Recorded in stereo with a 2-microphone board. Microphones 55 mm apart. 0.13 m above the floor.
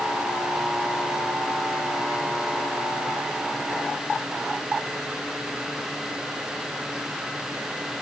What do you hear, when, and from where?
Only background noise.